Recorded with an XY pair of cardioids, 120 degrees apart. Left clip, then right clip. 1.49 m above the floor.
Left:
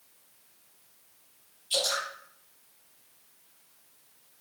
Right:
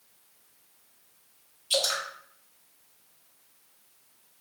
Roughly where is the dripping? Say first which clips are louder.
Right 2 dB; right.